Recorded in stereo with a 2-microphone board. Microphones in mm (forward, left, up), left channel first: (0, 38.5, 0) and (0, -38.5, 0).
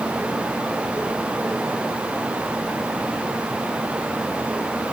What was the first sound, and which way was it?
Only background noise.